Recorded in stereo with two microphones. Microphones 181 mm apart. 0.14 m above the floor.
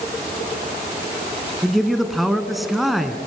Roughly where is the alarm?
No alarm in this recording.